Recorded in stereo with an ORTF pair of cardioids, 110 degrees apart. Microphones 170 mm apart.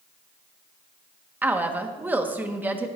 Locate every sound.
1.4 s a woman speaking: 10° right, 1.4 m